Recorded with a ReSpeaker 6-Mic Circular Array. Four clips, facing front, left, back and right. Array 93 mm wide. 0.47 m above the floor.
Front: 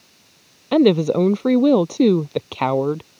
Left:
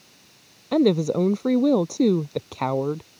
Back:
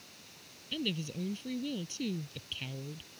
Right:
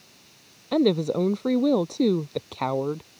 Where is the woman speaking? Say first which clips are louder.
Left 2 dB, front 24 dB; 5° left.